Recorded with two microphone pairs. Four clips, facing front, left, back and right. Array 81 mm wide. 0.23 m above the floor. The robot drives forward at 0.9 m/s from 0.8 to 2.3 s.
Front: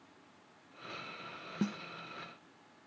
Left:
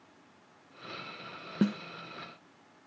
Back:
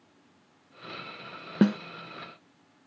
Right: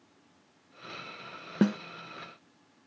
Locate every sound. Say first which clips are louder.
1.6 s a snare drum: right 3 dB, back 13 dB; 150° right; by 1.8 s 155° right